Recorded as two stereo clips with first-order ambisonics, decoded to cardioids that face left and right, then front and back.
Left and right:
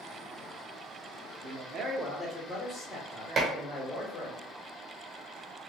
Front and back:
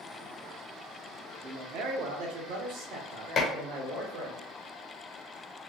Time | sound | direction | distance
1.4 | a man speaking | 135° right | 0.7 m
3.4 | dishes clattering | 40° right | 0.5 m